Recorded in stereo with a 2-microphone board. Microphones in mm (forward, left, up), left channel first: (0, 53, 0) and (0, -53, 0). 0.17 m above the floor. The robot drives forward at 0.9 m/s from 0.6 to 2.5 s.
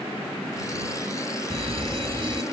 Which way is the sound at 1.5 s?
60° right (ahead or behind).